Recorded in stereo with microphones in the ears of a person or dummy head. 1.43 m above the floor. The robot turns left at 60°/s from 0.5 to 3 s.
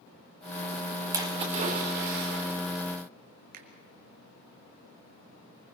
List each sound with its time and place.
1.1 s a splash: 20° right, 1.7 m; by 2.6 s 105° right, 1.7 m
3.5 s a finger snap: 55° right (ahead or behind), 1.5 m